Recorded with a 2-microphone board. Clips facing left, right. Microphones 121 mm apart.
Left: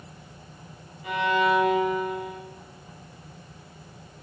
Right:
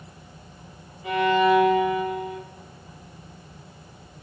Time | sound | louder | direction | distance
1.0 | a violin | right 4 dB | 30° right (ahead or behind) | 1.5 m